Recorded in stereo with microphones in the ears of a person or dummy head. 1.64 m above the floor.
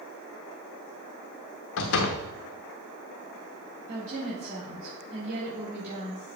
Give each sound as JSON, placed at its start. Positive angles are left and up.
{"t": 1.8, "sound": "a door slam", "side_deg": 65, "distance_m": 1.1}
{"t": 3.9, "sound": "a woman speaking", "side_deg": -45, "distance_m": 4.0}